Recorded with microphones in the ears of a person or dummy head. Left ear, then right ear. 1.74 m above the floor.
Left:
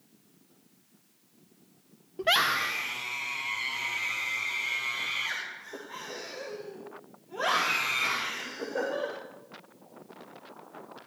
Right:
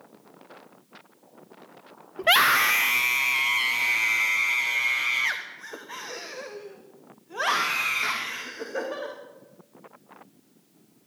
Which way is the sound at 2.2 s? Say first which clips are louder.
Right 6 dB; 20° right (ahead or behind).